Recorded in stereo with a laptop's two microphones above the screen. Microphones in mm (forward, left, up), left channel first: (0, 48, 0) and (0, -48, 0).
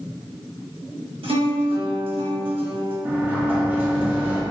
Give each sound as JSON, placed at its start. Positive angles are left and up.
{"t": 1.2, "sound": "a guitar", "side_deg": -70, "distance_m": 0.9}
{"t": 3.0, "sound": "a sliding door", "side_deg": -20, "distance_m": 0.7}